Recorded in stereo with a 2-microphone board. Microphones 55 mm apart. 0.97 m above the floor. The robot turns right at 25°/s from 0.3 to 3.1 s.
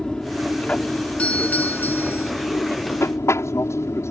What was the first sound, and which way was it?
An aircraft, 15° left.